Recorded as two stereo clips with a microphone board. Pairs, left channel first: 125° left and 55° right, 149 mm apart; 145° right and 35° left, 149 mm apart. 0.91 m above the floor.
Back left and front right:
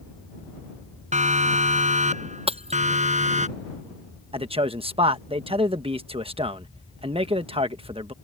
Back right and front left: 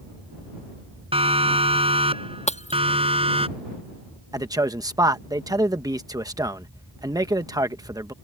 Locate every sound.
1.1 s a siren: 15° right
2.5 s breaking glass: 105° right
4.3 s a man speaking: 20° right